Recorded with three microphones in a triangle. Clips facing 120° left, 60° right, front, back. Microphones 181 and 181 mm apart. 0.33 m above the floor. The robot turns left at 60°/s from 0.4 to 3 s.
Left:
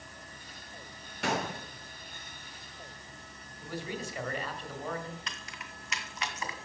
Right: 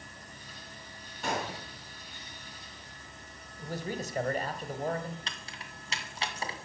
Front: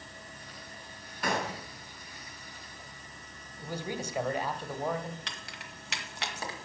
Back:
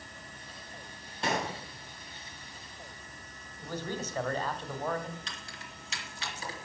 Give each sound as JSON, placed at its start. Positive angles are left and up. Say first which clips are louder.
{"t": 1.2, "sound": "a gunshot", "louder": "left 2 dB, even", "azimuth_deg": 120, "distance_m": 3.5}
{"t": 3.6, "sound": "a man speaking", "louder": "right 2 dB, even", "azimuth_deg": -75, "distance_m": 1.7}
{"t": 5.3, "sound": "keys jangling", "louder": "even, even", "azimuth_deg": 0, "distance_m": 2.0}